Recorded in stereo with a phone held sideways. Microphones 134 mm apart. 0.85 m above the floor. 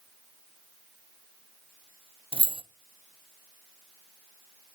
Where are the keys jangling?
45° right (ahead or behind), 0.5 m.